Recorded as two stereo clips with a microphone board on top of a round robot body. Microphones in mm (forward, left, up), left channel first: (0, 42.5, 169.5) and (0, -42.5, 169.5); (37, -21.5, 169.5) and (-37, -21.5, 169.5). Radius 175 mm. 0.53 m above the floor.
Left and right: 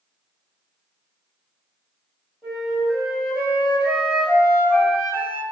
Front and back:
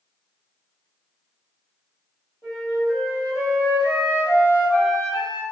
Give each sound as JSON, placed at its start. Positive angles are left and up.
{"t": 2.4, "sound": "a flute", "azimuth_deg": -165, "distance_m": 1.6}